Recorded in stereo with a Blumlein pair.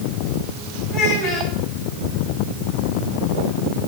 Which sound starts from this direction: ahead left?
A child speaking, at 0.9 s.